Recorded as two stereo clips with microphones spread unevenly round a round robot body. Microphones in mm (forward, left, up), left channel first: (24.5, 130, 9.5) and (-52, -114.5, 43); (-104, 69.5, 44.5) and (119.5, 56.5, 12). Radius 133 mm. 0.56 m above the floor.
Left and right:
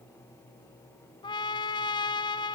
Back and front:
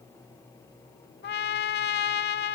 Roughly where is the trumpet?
Behind left.